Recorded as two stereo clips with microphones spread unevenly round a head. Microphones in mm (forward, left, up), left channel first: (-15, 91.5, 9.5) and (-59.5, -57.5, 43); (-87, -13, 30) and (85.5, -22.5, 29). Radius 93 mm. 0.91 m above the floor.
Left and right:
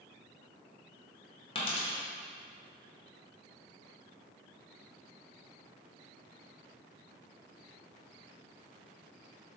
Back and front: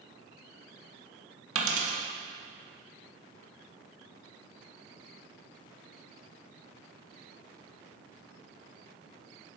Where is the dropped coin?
10° left, 1.1 m.